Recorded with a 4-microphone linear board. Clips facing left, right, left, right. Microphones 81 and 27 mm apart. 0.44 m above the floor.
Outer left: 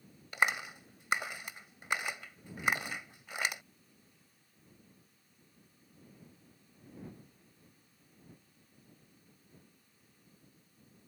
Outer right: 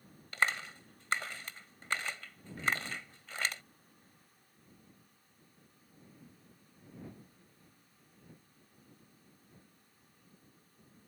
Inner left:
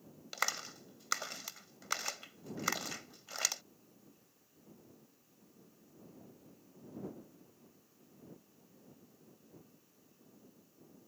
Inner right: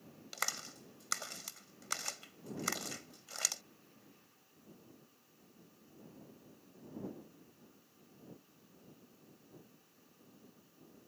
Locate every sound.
0.3 s a clap: 15° left (ahead or behind)